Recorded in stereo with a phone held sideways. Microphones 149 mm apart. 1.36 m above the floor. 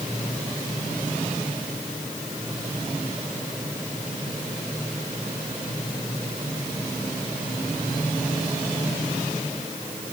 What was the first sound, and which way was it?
Only background noise.